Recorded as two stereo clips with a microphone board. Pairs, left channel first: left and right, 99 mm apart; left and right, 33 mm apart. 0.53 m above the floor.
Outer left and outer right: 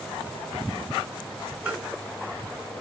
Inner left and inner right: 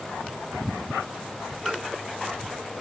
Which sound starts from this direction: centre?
Tapping, at 1.7 s.